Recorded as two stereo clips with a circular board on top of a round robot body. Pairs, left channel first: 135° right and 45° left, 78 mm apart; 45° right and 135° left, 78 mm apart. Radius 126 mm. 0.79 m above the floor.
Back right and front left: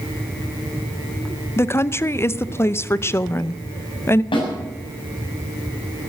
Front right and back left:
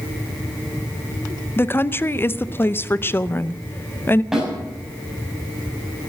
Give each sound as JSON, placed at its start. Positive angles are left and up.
{"t": 1.6, "sound": "a woman speaking", "azimuth_deg": -95, "distance_m": 0.8}
{"t": 4.3, "sound": "a snare drum", "azimuth_deg": -140, "distance_m": 6.5}